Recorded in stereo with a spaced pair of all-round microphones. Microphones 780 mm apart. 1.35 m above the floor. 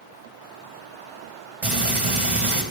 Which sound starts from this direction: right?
Frying, at 1.6 s.